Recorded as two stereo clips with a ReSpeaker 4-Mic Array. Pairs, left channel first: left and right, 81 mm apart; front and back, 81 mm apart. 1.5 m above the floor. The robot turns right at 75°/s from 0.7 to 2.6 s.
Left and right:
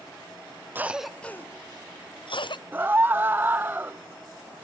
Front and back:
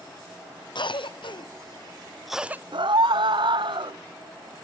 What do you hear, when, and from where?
0.8 s a cough: 25° right, 0.7 m; by 2.6 s 115° left, 0.7 m
2.7 s a scream: 160° right, 0.6 m